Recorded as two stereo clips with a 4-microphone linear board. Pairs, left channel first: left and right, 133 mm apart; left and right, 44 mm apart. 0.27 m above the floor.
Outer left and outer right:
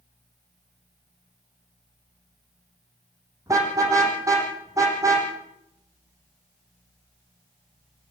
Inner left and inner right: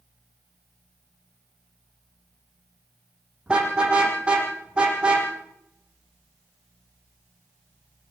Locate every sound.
3.5 s a car horn: 25° right (ahead or behind), 5.5 m